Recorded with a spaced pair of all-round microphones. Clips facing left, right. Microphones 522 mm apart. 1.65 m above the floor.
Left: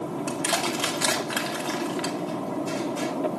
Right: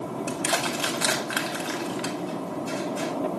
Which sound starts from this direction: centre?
Crushing, at 0.3 s.